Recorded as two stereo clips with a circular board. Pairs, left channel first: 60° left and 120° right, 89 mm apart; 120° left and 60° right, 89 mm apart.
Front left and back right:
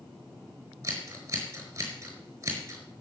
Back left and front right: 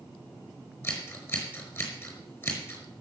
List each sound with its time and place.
0.8 s scissors: straight behind, 4.5 m